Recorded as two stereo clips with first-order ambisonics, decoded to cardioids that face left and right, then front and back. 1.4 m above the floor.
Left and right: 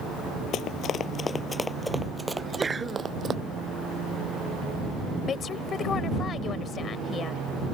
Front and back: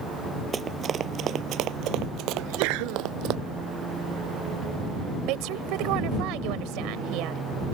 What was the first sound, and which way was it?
Running footsteps, 115° left.